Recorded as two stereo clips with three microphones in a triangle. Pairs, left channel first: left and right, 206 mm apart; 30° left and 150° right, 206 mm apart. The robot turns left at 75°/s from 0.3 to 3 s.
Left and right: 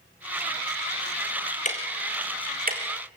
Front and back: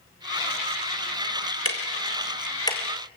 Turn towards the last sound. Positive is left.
turn(degrees=-65)